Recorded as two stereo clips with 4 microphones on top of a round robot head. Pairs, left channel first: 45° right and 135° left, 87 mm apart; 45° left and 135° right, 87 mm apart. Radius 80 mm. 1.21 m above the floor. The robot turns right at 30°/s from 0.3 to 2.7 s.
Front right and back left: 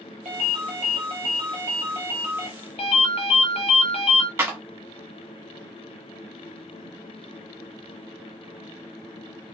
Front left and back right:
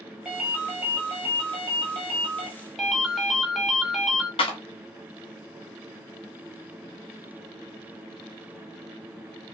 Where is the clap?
70° left, 1.5 m.